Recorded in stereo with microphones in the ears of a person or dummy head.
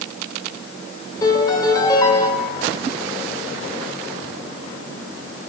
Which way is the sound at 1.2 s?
25° left (ahead or behind).